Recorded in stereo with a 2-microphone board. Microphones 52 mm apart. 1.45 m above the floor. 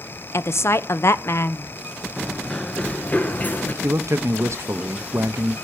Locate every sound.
0.3 s a woman speaking: 55° left (ahead or behind), 0.8 m
2.2 s running footsteps: 5° left (ahead or behind), 1.5 m; by 3.7 s 40° left (ahead or behind), 1.8 m
3.8 s a man speaking: 60° right (ahead or behind), 0.8 m